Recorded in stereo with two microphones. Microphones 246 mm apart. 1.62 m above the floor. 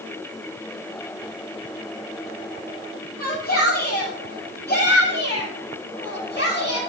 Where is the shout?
40° left (ahead or behind), 9 m; by 6.8 s 45° left (ahead or behind), 11 m.